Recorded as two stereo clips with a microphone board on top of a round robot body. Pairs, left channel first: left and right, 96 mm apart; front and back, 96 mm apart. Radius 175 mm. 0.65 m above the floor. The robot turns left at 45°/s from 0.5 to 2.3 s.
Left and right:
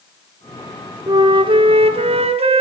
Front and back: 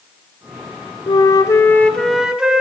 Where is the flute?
40° right, 1.4 m; by 2.6 s 100° right, 1.4 m.